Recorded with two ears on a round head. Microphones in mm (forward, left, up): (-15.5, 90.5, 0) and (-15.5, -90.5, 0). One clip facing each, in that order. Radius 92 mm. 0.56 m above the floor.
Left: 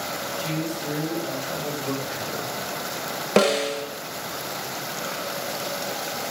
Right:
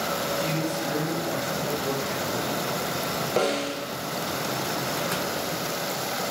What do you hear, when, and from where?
0.4 s a man speaking: 15° right (ahead or behind), 3 m
3.4 s a snare drum: 65° left (ahead or behind), 0.5 m